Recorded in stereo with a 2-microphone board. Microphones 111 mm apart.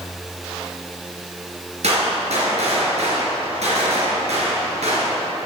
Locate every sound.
1.8 s a gunshot: 80° right, 4 m